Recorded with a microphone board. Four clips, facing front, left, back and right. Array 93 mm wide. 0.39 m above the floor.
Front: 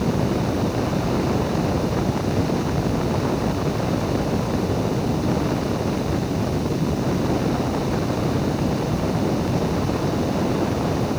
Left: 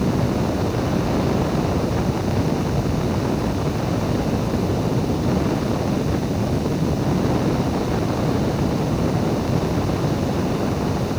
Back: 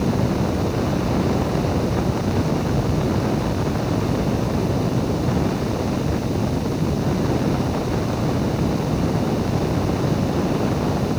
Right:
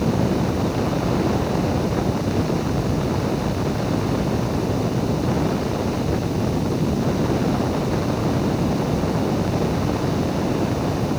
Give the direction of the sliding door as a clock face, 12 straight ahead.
No sliding door in this recording.